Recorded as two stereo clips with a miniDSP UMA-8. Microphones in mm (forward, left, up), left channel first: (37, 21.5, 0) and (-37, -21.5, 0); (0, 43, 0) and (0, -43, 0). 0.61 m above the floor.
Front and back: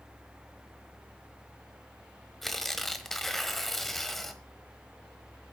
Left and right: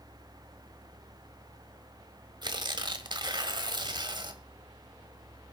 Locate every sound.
2.4 s tearing paper: 55° right, 1.2 m